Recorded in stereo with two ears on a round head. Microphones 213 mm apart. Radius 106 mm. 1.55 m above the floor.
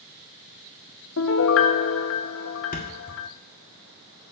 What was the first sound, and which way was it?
A piano, 55° left (ahead or behind).